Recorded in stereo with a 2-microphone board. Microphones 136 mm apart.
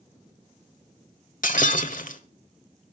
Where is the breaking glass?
80° left, 1.3 m.